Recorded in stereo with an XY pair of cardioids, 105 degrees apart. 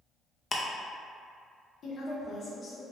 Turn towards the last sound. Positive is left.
turn(degrees=45)